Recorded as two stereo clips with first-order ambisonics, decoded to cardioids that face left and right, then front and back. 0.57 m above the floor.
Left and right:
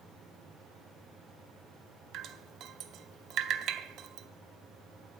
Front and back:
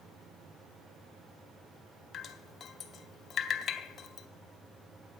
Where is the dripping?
55° right, 0.7 m.